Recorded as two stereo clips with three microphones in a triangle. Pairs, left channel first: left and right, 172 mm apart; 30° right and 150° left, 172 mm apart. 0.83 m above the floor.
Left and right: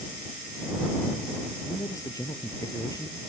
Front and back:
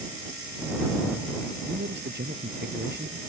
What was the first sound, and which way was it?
A man speaking, 160° left.